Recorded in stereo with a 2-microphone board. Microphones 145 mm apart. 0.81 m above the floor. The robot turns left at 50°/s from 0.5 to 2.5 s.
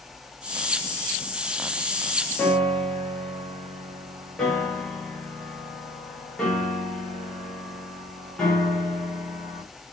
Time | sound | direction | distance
2.4 | a piano | 10° left (ahead or behind) | 1.2 m